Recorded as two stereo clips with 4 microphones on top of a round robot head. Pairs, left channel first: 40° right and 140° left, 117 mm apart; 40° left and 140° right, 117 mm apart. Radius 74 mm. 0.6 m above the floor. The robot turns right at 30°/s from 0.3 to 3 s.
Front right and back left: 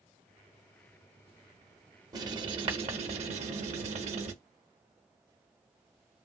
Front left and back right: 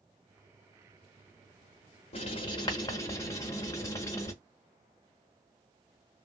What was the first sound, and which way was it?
Writing, 75° left.